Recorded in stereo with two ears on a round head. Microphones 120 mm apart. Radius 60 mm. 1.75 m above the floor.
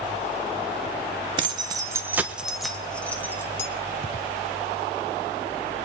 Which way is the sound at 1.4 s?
40° right (ahead or behind).